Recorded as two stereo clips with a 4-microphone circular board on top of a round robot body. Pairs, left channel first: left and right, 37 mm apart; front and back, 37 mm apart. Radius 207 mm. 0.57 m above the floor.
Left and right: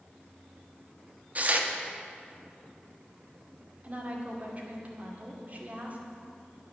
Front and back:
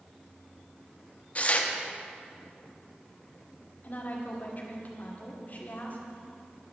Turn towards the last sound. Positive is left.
turn(degrees=-45)